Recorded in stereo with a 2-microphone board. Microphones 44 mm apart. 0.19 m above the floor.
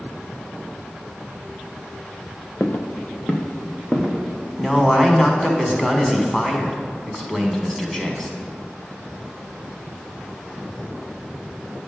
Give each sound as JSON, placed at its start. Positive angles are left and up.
{"t": 2.6, "sound": "footsteps", "side_deg": 40, "distance_m": 0.8}
{"t": 4.6, "sound": "a man speaking", "side_deg": 5, "distance_m": 1.2}